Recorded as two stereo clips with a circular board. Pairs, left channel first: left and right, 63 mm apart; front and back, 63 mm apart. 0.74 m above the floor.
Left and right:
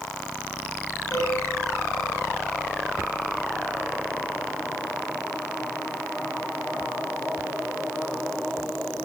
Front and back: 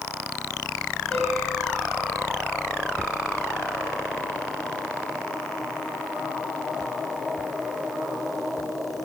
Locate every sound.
1.1 s a piano: 75° left, 8 m